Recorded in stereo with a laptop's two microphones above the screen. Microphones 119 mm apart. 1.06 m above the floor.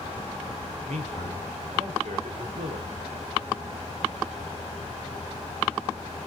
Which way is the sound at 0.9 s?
80° right.